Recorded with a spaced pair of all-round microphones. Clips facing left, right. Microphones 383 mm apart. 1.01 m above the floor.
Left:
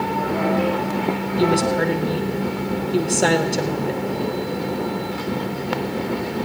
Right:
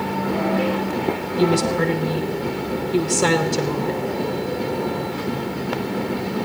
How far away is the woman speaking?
About 0.8 m.